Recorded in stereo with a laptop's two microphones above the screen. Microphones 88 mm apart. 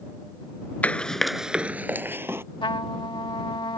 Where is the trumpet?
75° left (ahead or behind).